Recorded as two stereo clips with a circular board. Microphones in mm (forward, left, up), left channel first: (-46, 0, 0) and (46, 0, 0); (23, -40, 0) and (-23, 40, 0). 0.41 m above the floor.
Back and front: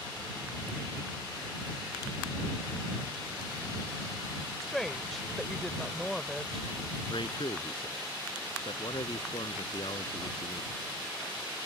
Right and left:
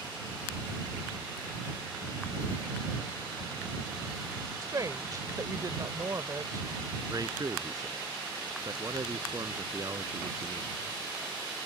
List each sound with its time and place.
4.6 s a woman speaking: 95° left
7.1 s a man speaking: 165° left